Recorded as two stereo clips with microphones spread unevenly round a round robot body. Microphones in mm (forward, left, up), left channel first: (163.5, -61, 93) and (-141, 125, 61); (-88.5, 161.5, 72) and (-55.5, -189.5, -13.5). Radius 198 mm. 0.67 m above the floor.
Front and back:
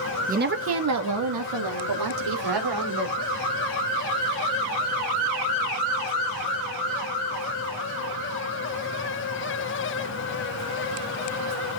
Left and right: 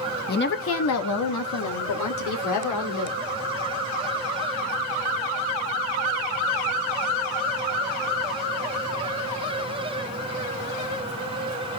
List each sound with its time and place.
0.3 s a woman speaking: 160° left, 1.1 m; by 3.2 s 140° left, 3 m